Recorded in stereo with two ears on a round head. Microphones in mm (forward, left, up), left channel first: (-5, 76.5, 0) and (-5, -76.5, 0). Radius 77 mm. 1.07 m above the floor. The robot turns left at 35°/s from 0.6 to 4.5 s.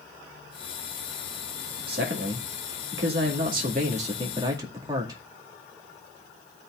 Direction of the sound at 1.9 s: 65° right.